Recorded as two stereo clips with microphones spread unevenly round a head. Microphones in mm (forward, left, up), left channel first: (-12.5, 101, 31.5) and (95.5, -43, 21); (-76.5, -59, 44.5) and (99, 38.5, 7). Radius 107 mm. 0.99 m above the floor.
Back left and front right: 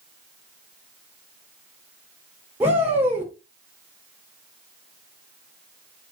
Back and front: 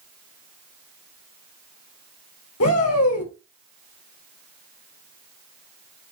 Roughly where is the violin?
I don't hear a violin.